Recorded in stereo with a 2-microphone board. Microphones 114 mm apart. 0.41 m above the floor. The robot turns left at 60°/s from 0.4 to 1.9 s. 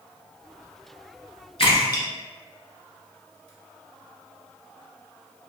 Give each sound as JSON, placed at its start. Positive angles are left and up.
{"t": 1.6, "sound": "a splash", "side_deg": 65, "distance_m": 1.4}